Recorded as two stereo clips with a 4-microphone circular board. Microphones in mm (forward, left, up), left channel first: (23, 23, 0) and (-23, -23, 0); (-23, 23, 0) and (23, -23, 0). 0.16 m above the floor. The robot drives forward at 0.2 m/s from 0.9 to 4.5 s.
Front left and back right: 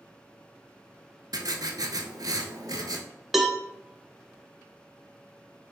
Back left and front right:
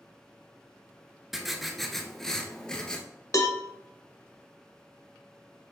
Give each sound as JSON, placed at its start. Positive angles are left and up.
{"t": 1.3, "sound": "writing", "azimuth_deg": -130, "distance_m": 0.6}
{"t": 3.3, "sound": "a cowbell", "azimuth_deg": 135, "distance_m": 0.5}